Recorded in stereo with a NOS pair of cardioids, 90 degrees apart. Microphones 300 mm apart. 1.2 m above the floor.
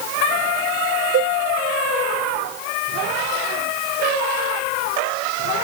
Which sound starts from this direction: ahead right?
A cowbell, at 1.1 s.